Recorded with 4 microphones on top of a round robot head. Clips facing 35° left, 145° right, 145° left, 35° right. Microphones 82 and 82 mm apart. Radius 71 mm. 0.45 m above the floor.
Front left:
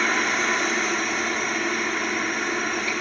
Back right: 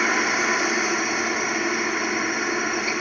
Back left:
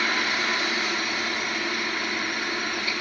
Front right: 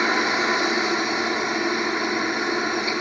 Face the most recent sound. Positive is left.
turn(degrees=-70)